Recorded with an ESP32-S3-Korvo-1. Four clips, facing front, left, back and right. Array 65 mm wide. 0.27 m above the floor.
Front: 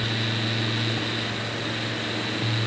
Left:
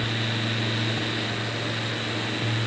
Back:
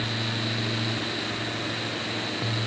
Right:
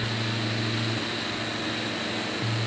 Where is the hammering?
No hammering in this recording.